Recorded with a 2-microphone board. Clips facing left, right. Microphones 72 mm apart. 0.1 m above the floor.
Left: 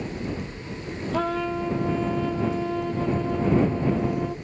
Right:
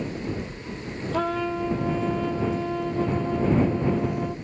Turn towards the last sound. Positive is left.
turn(degrees=0)  # may be behind; listen again after turning